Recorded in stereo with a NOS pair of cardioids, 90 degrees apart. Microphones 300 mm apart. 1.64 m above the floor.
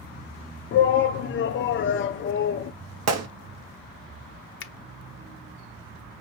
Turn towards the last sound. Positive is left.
turn(degrees=40)